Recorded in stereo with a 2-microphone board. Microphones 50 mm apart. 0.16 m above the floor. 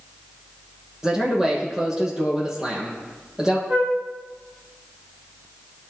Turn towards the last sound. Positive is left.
turn(degrees=-40)  # may be behind; listen again after turning